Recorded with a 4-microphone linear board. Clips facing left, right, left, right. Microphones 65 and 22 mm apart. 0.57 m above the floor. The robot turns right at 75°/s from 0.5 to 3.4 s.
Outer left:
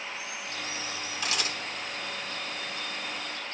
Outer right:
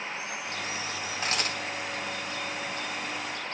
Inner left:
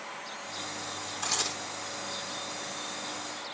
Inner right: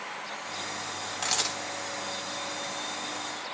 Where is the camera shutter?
35° right (ahead or behind), 2.5 m; by 1.6 s 65° right (ahead or behind), 2.5 m.